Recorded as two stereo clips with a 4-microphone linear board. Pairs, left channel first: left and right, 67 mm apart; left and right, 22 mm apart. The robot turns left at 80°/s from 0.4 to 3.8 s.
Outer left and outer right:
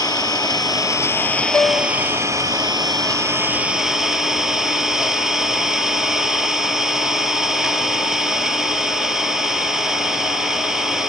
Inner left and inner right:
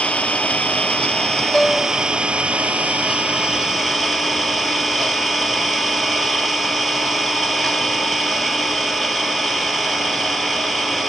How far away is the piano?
About 1.0 m.